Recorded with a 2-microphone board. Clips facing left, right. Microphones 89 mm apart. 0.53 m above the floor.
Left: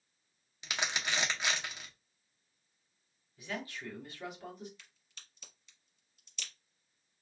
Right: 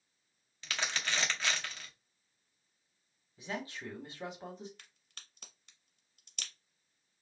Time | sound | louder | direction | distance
0.6 | crumpling | left 1 dB | 15° left (ahead or behind) | 0.8 m
3.4 | a man speaking | right 1 dB | 30° right (ahead or behind) | 1.4 m
4.8 | a crack | right 1 dB | 60° right (ahead or behind) | 0.9 m